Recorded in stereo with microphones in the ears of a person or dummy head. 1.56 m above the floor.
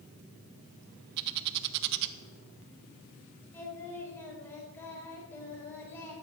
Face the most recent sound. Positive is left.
turn(degrees=15)  # may be behind; listen again after turning